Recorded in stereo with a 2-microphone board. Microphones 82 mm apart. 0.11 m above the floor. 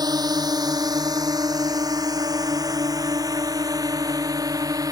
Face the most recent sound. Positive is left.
turn(degrees=-50)  # may be behind; listen again after turning